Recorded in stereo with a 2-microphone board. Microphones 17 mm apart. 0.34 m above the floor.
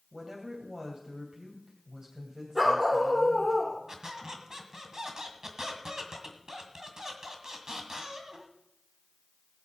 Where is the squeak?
40° right (ahead or behind), 1.9 m.